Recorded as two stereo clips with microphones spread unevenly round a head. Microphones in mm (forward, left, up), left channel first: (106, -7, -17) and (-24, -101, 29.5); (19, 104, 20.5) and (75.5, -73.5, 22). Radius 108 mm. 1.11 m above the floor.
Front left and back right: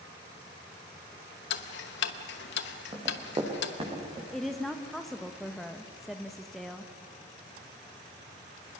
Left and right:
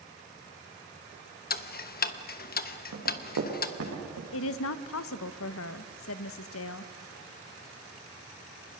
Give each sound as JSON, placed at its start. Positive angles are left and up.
{"t": 1.5, "sound": "ticking", "azimuth_deg": 65, "distance_m": 1.0}
{"t": 2.9, "sound": "running footsteps", "azimuth_deg": -90, "distance_m": 6.5}
{"t": 4.3, "sound": "a woman speaking", "azimuth_deg": 120, "distance_m": 0.9}